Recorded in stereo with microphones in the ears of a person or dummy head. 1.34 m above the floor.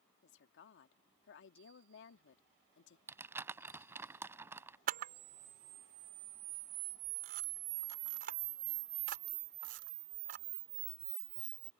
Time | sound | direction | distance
0.2 | a woman speaking | 85° left | ?
3.1 | crumpling | 15° right (ahead or behind) | ?
4.9 | a camera shutter | 50° right (ahead or behind) | ?